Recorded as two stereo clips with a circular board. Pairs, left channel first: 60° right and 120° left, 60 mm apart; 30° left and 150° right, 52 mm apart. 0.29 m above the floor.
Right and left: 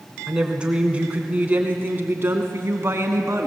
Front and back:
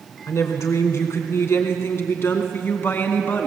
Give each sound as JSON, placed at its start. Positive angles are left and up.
{"t": 0.3, "sound": "a woman speaking", "azimuth_deg": 40, "distance_m": 3.0}